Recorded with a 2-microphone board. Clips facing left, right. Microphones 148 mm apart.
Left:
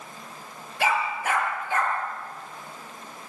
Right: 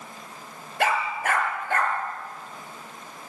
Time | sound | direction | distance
0.8 | a dog barking | 60° right (ahead or behind) | 4.5 m